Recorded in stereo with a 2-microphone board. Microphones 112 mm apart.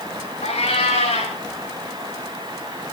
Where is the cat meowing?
70° left (ahead or behind), 5 m.